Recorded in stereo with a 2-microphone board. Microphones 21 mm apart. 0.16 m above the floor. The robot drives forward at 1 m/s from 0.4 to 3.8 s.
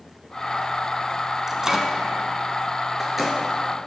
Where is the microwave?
20° right (ahead or behind), 1.1 m; by 3.4 s 10° right (ahead or behind), 2.5 m.